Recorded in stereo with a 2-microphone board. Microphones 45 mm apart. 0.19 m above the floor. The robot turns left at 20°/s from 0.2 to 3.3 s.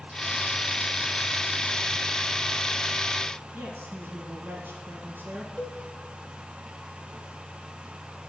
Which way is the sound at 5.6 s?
15° left (ahead or behind).